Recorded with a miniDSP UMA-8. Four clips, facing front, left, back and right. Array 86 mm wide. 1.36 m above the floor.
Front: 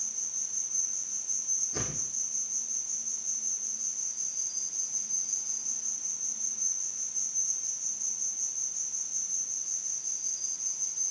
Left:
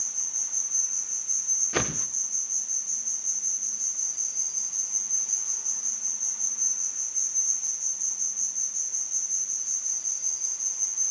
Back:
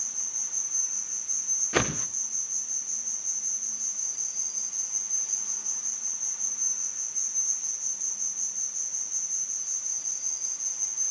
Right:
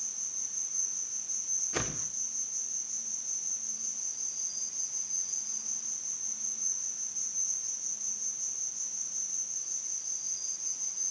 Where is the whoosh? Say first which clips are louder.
Left 7 dB, back 12 dB; 160° left, 1.0 m.